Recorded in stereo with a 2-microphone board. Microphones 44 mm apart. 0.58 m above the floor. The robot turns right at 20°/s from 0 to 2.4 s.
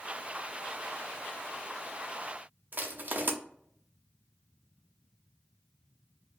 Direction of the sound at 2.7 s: 45° right (ahead or behind).